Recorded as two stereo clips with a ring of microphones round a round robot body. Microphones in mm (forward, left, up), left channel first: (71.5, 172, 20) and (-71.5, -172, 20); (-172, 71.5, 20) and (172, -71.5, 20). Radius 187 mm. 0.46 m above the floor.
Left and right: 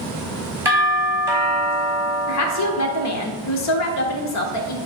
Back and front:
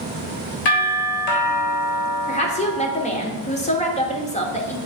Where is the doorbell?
165° left, 3.5 m.